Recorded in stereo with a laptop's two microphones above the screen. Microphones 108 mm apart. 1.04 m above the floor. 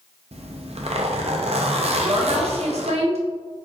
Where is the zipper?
70° right (ahead or behind), 0.5 m.